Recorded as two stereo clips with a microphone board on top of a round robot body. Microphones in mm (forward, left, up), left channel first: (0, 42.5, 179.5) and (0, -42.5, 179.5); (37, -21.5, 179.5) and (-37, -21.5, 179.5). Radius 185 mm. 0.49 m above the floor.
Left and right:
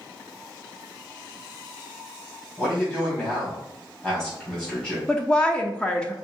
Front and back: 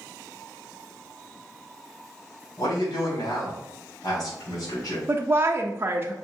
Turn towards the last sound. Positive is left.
turn(degrees=160)